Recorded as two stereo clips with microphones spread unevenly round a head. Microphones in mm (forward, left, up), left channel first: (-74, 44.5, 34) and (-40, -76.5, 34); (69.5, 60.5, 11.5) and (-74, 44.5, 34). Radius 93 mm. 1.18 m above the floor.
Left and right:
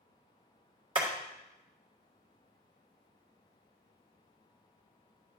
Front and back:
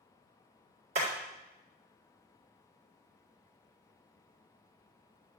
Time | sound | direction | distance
0.9 | hammering | 120° right | 3.5 m